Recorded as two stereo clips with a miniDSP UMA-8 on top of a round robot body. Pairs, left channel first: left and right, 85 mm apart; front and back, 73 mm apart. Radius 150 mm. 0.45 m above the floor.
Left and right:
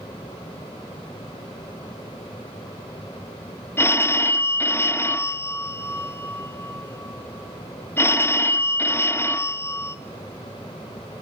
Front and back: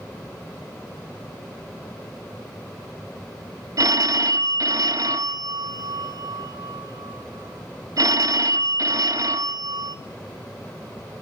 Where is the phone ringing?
150° left, 0.8 m.